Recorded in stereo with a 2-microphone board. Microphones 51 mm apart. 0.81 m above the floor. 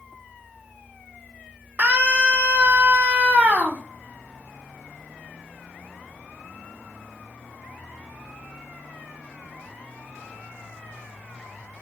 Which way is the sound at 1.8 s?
35° right (ahead or behind).